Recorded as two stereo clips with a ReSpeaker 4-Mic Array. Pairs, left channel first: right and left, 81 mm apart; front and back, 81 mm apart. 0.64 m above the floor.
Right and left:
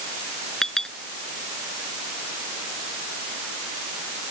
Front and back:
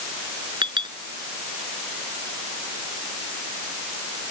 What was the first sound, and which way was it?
A clink, 175° right.